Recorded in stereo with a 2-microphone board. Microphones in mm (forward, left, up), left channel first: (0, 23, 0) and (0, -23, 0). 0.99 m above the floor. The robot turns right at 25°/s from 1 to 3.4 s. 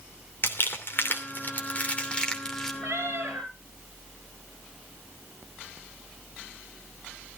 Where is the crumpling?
50° left (ahead or behind), 2.5 m; by 2.7 s 10° left (ahead or behind), 2.5 m.